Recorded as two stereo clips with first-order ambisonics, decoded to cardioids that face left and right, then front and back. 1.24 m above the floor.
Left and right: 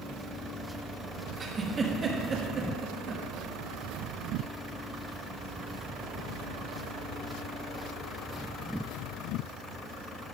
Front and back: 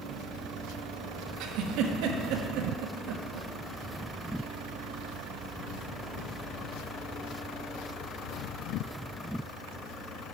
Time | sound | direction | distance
1.4 | a giggle | 160° right | 1.1 m